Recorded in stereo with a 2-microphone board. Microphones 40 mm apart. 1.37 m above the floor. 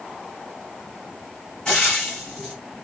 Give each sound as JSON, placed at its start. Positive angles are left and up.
{"t": 1.6, "sound": "frying", "side_deg": 30, "distance_m": 4.0}